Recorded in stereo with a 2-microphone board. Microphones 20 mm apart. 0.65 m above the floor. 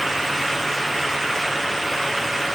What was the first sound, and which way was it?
Only background noise.